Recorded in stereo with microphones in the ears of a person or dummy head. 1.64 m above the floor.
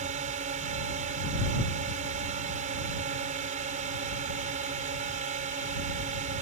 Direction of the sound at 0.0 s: 35° right (ahead or behind).